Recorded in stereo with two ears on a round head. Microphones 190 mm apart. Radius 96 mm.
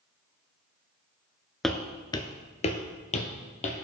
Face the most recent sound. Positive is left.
turn(degrees=35)  # may be behind; listen again after turning